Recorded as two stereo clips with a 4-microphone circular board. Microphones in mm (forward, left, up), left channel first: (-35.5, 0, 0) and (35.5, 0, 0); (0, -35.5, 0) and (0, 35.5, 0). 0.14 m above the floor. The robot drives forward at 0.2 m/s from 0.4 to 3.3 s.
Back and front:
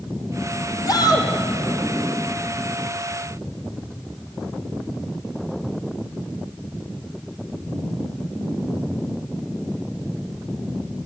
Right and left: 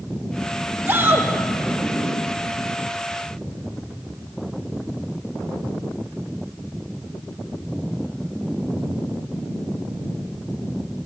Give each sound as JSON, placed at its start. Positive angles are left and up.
{"t": 0.9, "sound": "a shout", "azimuth_deg": 150, "distance_m": 5.0}